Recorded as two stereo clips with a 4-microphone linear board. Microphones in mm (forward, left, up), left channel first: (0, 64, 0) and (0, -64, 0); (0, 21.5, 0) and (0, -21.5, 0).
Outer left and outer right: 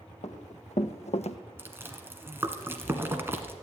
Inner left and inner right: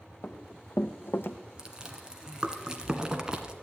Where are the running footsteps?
65° left (ahead or behind), 2 m; by 1.4 s 55° left (ahead or behind), 0.9 m.